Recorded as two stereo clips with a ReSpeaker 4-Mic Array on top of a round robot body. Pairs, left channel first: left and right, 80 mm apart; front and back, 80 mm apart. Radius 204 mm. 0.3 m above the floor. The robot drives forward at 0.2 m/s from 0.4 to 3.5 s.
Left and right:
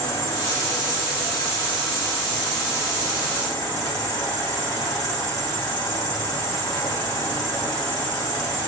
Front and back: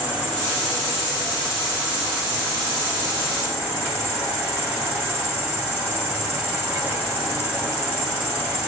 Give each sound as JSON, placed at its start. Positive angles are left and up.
{"t": 0.0, "sound": "an insect", "azimuth_deg": 110, "distance_m": 3.0}